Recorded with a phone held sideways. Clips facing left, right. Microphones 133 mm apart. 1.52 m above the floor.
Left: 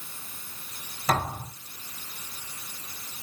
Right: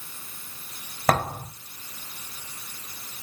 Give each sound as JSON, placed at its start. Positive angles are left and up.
{"t": 1.1, "sound": "a thud", "side_deg": -60, "distance_m": 3.0}